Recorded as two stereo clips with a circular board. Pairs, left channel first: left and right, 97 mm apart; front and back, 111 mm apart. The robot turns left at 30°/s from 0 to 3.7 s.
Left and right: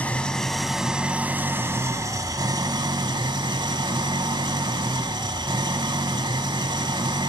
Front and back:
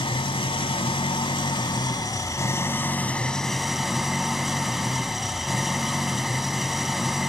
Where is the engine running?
20° left, 0.7 m; by 7.3 s 90° right, 0.7 m.